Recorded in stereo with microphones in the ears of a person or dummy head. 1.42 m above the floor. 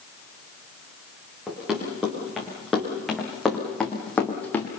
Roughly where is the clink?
No clink in this recording.